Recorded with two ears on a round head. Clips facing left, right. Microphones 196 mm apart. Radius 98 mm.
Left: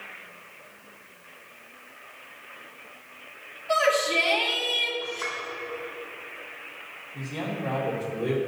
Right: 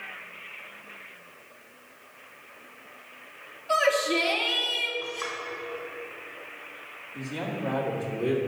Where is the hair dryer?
I don't hear a hair dryer.